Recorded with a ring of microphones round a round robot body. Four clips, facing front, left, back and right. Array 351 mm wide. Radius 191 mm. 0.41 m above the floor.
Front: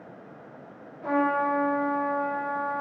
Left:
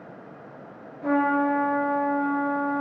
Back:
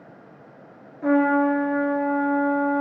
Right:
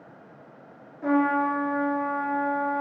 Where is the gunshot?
No gunshot in this recording.